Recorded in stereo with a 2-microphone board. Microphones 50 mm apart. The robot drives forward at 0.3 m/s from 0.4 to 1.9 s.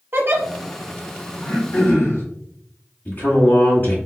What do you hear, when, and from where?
0.1 s a giggle: 50° right (ahead or behind), 0.7 m
1.4 s throat clearing: 65° left (ahead or behind), 1.6 m; by 2.2 s 60° left (ahead or behind), 1.6 m
3.0 s a man speaking: 45° left (ahead or behind), 1.4 m